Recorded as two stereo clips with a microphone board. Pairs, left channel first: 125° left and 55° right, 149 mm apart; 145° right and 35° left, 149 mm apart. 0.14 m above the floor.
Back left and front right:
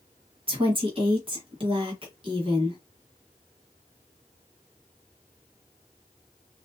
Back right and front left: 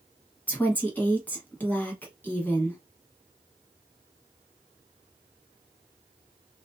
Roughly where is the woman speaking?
Right.